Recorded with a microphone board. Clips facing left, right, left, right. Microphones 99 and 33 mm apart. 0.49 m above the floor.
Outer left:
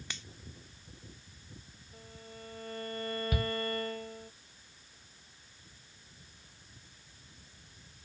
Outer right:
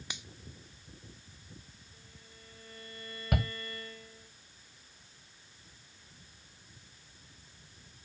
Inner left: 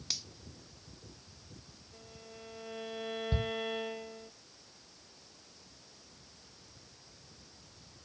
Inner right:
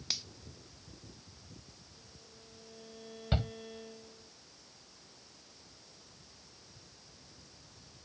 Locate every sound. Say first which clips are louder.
0.1 s a finger snap: outer right 1 dB, inner right 1 dB; 15° right (ahead or behind)
1.9 s a violin: outer left 12 dB, inner left 6 dB; 60° left (ahead or behind)
3.3 s a shout: outer right 3 dB, inner right 2 dB; 70° right (ahead or behind)